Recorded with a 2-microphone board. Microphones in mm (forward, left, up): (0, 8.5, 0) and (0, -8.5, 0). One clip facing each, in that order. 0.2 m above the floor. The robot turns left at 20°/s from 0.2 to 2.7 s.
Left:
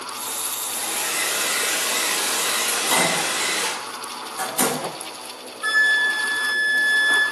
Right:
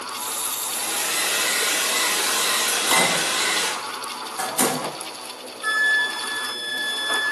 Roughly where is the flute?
Centre.